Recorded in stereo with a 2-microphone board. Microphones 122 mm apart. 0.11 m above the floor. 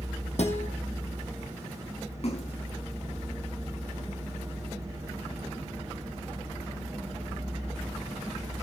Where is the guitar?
60° left (ahead or behind), 4 m.